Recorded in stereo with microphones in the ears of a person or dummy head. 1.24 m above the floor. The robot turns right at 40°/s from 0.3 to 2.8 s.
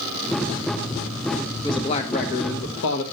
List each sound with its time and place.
1.6 s a man speaking: 20° left, 1.4 m; by 3.0 s 70° left, 1.4 m